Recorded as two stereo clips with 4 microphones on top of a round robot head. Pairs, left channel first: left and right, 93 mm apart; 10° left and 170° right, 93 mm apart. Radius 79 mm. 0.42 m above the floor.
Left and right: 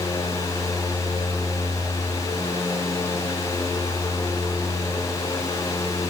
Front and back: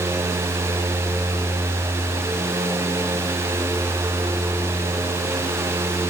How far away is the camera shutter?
I don't hear a camera shutter.